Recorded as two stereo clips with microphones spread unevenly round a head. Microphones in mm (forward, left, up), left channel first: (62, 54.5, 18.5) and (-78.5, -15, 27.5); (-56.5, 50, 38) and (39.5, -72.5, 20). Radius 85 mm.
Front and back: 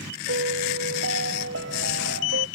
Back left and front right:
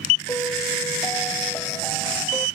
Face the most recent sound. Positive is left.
turn(degrees=-155)